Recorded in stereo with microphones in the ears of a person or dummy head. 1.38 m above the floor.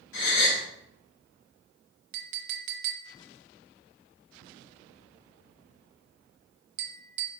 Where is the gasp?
80° left, 2.0 m.